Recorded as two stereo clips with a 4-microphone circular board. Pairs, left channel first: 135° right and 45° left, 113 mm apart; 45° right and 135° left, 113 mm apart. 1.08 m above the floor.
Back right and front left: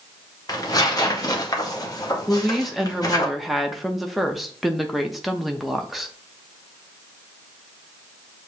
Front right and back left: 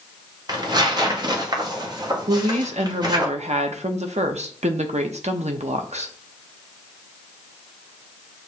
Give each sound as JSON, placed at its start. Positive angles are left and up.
{"t": 0.5, "sound": "tearing paper", "azimuth_deg": 175, "distance_m": 1.0}
{"t": 2.3, "sound": "a woman speaking", "azimuth_deg": 135, "distance_m": 0.7}